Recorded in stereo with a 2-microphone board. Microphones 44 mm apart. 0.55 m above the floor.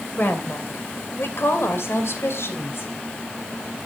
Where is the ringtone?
No ringtone in this recording.